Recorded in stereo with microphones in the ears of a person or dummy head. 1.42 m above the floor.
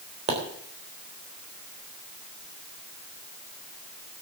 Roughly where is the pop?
Right.